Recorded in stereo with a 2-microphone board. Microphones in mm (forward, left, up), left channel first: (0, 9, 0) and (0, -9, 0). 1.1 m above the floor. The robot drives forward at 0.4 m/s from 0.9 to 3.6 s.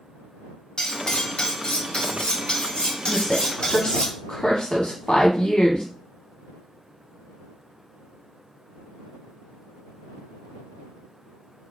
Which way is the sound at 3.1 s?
65° left (ahead or behind).